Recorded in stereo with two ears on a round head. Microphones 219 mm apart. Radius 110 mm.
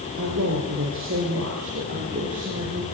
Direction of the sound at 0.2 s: 40° right (ahead or behind).